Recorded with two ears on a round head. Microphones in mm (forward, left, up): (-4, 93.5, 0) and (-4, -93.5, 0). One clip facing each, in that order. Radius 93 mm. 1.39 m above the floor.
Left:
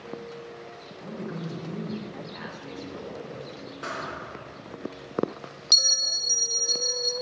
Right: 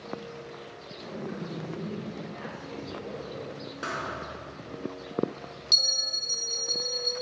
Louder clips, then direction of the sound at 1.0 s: Left 1 dB; 60° left (ahead or behind).